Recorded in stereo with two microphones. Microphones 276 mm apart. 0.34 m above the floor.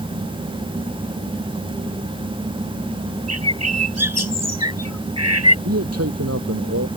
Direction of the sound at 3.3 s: 65° right (ahead or behind).